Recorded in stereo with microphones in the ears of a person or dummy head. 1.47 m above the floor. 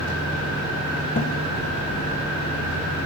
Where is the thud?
30° left (ahead or behind), 0.8 m.